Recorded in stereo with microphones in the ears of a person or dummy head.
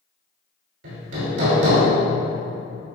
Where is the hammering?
60° right (ahead or behind), 2.5 m.